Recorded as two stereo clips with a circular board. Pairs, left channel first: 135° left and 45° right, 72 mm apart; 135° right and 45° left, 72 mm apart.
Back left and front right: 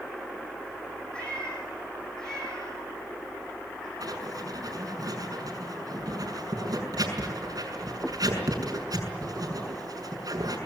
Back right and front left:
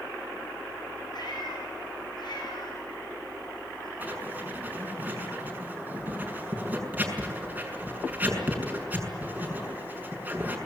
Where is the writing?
20° right, 6 m.